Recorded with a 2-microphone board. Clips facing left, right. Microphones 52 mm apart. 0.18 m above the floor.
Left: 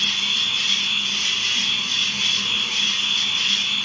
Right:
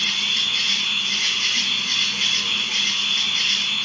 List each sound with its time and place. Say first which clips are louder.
0.0 s an insect: even; 55° right (ahead or behind), 1.1 m